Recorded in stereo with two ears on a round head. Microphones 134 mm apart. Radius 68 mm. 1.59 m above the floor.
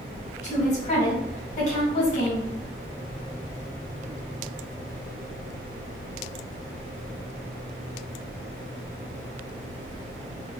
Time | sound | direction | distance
0.4 | a woman speaking | 50° left (ahead or behind) | 1.8 m